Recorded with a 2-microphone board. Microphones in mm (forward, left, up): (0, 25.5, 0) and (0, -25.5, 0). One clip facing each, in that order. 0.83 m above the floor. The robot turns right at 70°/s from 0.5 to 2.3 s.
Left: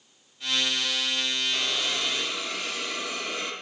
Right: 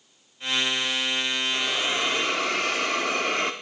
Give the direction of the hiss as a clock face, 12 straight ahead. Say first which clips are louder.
Right 3 dB; 6 o'clock.